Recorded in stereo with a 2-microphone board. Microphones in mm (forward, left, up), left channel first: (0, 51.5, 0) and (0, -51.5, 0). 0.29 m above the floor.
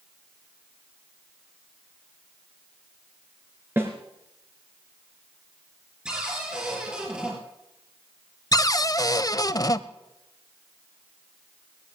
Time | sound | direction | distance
3.8 | a snare drum | 25° right (ahead or behind) | 3 m
6.0 | a cupboard door | 10° right (ahead or behind) | 5.5 m
8.5 | a cupboard door | 35° left (ahead or behind) | 0.6 m